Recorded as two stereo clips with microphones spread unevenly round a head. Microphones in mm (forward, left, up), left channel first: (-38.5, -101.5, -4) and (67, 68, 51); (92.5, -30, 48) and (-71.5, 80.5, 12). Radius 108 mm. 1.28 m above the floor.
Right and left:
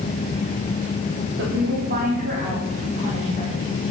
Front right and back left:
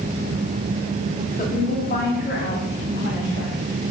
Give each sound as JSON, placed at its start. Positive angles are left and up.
{"t": 1.4, "sound": "a woman speaking", "azimuth_deg": 20, "distance_m": 3.5}